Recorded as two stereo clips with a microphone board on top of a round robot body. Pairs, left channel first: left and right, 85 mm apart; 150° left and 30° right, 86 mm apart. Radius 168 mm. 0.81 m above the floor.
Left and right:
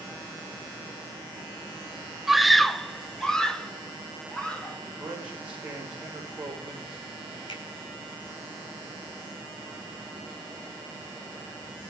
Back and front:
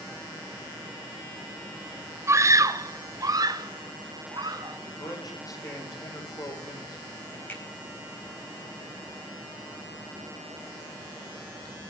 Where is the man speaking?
165° right, 5 m.